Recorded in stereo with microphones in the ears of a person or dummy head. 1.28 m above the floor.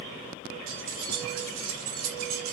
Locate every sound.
0.7 s keys jangling: 80° right, 2 m